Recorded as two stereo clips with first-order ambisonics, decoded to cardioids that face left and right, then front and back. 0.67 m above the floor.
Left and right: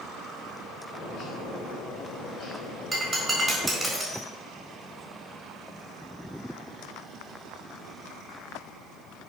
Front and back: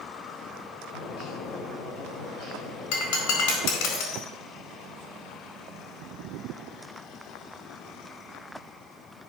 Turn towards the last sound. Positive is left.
turn(degrees=-5)